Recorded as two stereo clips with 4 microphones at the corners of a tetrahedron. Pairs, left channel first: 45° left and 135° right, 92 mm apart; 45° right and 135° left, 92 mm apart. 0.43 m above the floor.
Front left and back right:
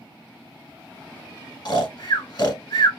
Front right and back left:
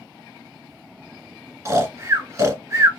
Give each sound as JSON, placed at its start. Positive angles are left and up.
{"t": 1.6, "sound": "snoring", "azimuth_deg": 75, "distance_m": 0.8}